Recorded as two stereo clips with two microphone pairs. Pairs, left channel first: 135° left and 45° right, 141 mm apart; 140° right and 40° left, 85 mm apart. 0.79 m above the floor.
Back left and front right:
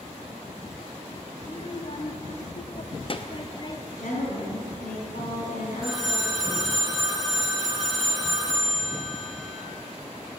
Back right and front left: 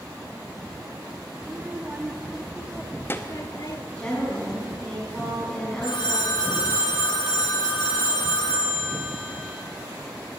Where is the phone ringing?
135° right, 3 m.